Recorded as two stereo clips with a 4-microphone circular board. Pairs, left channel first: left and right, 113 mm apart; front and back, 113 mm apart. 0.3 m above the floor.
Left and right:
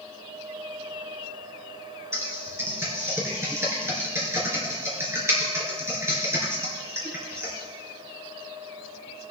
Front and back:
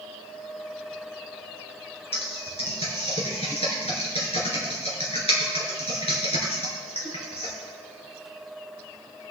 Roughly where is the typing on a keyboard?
Ahead right.